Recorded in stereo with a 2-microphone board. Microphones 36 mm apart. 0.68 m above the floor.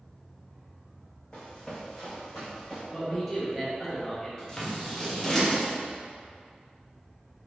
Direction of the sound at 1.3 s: 25° left (ahead or behind).